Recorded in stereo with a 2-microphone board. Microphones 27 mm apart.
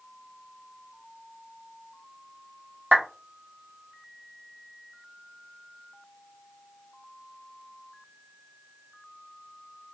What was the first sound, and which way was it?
A clap, 70° right (ahead or behind).